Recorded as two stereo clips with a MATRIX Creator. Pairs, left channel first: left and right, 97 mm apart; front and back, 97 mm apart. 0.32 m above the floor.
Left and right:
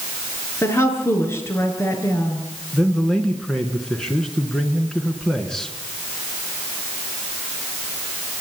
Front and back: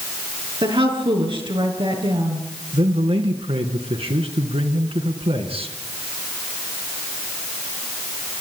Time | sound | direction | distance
0.6 | a woman speaking | 150° left | 5.5 m
2.7 | a man speaking | 175° left | 3 m